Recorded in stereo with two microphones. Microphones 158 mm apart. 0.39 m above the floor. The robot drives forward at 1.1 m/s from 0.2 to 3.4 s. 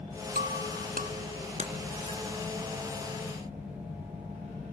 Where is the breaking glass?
80° right, 2 m; by 2.2 s 45° right (ahead or behind), 3 m.